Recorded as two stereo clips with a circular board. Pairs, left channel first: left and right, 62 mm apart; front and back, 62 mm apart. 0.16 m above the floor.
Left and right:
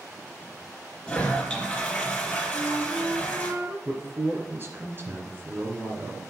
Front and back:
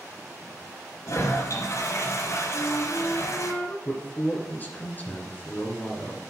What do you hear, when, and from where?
1.1 s a toilet flushing: 20° left, 2.5 m
2.5 s a flute: 30° right, 2.5 m
3.9 s a man speaking: 50° right, 2 m